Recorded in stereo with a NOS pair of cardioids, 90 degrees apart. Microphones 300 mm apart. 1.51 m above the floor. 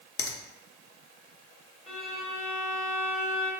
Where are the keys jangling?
No keys jangling in this recording.